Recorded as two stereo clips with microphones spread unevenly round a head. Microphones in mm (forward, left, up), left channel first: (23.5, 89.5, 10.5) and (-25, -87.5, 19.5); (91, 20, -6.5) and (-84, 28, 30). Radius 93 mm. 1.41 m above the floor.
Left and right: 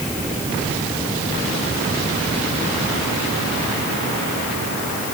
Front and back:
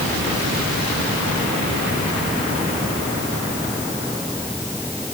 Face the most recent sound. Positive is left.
No sound to turn to.